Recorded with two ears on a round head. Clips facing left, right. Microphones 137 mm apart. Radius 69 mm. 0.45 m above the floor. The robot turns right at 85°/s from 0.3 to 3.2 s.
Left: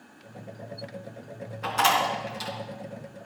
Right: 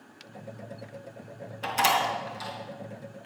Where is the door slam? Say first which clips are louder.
Left 1 dB; 35° right (ahead or behind), 3 m; by 2.5 s 35° left (ahead or behind), 3 m.